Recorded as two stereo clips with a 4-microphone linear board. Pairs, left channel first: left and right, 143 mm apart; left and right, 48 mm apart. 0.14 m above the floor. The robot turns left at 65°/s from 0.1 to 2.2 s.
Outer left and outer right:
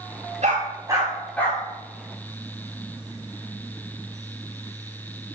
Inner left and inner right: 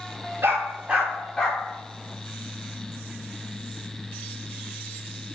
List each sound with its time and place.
0.4 s a dog barking: 55° right (ahead or behind), 9 m; by 1.6 s 25° left (ahead or behind), 9 m